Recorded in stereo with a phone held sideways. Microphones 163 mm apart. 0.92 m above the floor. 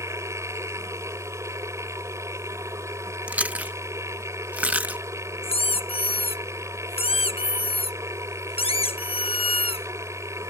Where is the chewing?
10° right (ahead or behind).